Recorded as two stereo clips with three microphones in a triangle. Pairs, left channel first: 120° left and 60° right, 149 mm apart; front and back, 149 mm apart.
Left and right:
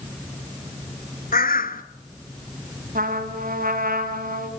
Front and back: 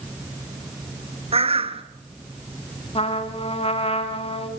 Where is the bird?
135° left, 0.8 m.